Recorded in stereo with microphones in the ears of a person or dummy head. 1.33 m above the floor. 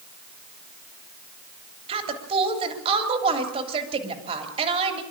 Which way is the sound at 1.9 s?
30° right (ahead or behind).